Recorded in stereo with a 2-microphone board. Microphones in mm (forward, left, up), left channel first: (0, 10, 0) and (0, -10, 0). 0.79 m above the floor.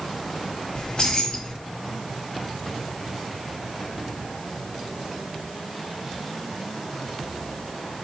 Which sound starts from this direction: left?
Keys jangling, at 0.8 s.